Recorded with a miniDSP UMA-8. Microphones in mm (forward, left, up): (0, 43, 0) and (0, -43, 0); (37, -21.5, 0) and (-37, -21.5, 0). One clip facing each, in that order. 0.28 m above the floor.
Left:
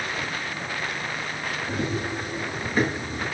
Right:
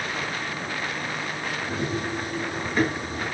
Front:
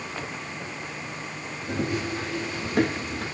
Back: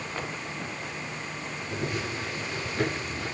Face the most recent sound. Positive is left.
turn(degrees=5)